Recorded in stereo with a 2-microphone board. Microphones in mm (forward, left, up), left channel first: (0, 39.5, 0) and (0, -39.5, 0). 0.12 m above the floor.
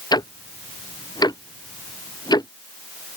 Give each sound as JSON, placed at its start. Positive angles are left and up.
{"t": 0.1, "sound": "ticking", "side_deg": 60}